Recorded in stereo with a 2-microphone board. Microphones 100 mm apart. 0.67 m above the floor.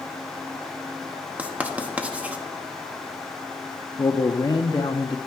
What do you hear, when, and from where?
1.4 s writing: 15° right (ahead or behind), 1.0 m
4.0 s a man speaking: 40° left (ahead or behind), 0.6 m